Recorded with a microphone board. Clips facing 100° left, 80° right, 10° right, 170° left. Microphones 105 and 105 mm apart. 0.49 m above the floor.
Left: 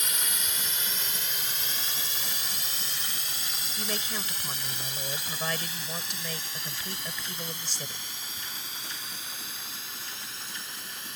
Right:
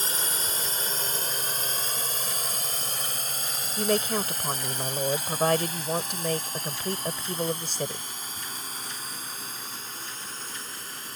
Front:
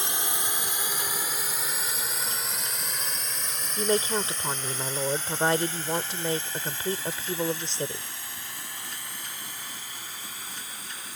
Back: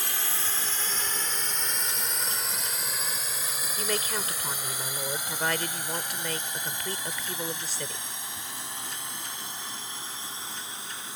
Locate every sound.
0.0 s a drone: 65° right; by 11.2 s 125° right
3.8 s a woman speaking: 65° right